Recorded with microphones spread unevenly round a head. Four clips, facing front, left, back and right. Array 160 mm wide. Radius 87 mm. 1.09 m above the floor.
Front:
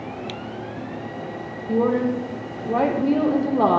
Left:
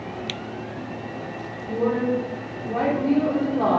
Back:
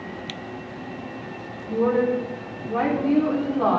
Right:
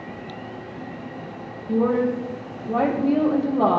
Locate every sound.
1.7 s a woman speaking: 20° right, 3.5 m